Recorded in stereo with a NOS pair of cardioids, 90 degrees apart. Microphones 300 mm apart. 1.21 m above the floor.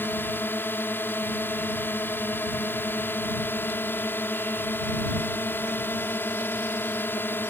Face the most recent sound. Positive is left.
turn(degrees=5)